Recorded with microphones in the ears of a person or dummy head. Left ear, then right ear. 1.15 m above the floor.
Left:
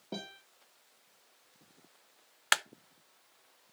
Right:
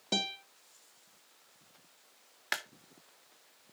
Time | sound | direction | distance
0.1 | a guitar | 75° right (ahead or behind) | 2.5 m
2.5 | a clap | 40° left (ahead or behind) | 0.6 m